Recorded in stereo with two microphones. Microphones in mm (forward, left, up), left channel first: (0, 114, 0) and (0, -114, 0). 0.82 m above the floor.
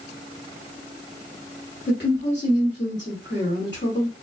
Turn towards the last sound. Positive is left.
turn(degrees=45)  # may be behind; listen again after turning